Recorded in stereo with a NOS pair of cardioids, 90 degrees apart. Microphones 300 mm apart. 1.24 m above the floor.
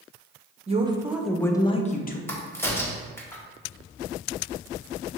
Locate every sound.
0.7 s a woman speaking: 25° right, 0.8 m; by 2.2 s 35° left, 0.9 m
2.3 s a crack: 10° left, 1.0 m